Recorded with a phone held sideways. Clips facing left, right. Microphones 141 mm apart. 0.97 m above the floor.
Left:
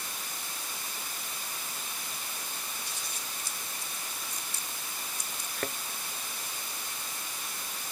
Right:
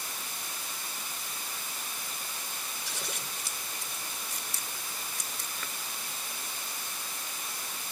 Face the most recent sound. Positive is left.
turn(degrees=50)  # may be behind; listen again after turning